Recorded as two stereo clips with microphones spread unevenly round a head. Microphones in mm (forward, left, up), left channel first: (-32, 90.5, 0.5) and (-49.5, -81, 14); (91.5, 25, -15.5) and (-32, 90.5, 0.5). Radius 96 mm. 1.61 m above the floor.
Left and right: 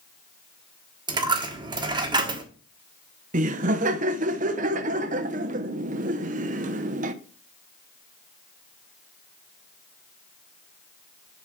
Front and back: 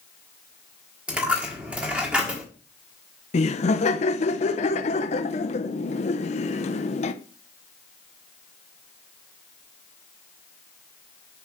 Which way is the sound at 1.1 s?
140° right.